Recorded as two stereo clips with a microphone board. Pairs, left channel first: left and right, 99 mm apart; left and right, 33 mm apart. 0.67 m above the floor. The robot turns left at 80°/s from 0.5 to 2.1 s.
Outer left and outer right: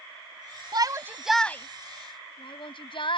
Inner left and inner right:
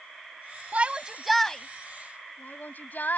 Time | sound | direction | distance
0.7 | a shout | 50° right (ahead or behind) | ?